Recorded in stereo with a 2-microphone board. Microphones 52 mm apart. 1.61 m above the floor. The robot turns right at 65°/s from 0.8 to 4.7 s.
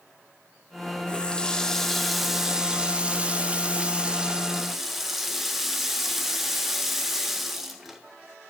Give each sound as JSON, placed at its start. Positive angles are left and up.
{"t": 1.1, "sound": "a running tap", "side_deg": 20, "distance_m": 0.5}